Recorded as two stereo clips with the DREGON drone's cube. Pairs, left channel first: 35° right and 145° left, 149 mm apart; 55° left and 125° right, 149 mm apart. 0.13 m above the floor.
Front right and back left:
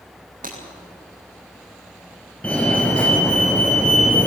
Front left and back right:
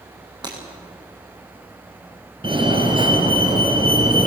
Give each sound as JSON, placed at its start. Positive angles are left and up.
{"t": 0.4, "sound": "breaking glass", "azimuth_deg": 175, "distance_m": 8.5}
{"t": 2.4, "sound": "a fire alarm", "azimuth_deg": -110, "distance_m": 2.5}